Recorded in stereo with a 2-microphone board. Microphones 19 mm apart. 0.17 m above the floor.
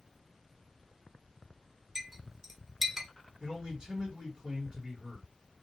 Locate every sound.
1.9 s a clink: 15° right (ahead or behind), 0.7 m
3.4 s a man speaking: 40° right (ahead or behind), 1.9 m